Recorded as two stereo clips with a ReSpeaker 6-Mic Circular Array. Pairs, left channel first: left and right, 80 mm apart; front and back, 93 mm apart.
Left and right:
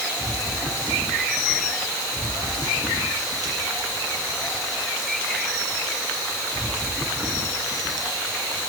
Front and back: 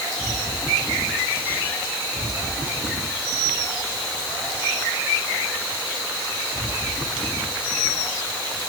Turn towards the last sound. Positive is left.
No sound to turn to.